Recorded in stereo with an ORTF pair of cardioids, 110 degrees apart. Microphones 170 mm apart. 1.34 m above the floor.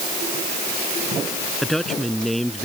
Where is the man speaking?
Straight ahead.